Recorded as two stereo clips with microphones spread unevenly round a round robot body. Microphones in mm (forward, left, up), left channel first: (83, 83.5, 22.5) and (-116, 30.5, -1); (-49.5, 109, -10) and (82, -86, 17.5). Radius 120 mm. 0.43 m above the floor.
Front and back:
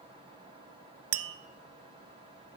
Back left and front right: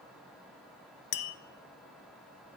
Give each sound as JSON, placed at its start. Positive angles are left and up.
{"t": 1.1, "sound": "tapping", "azimuth_deg": 175, "distance_m": 0.5}